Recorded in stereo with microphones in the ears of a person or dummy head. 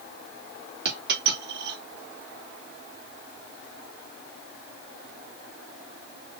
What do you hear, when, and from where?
0.8 s a dropped coin: 60° right (ahead or behind), 2 m